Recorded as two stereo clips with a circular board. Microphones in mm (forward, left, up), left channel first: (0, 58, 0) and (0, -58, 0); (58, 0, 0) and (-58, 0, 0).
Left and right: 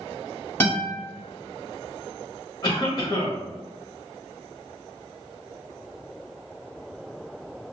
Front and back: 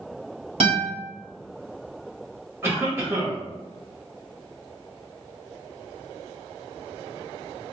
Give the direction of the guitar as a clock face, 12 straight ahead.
7 o'clock.